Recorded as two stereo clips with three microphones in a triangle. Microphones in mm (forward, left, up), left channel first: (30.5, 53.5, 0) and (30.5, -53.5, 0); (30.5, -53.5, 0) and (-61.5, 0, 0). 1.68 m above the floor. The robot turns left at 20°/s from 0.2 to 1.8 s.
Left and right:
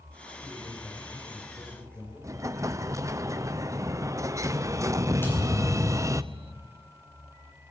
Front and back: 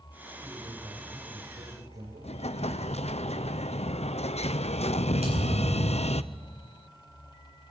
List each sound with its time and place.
0.4 s a man speaking: 165° right, 5.5 m; by 3.0 s 170° left, 5.5 m
2.2 s an explosion: 30° right, 0.7 m
5.2 s a thud: 160° left, 9 m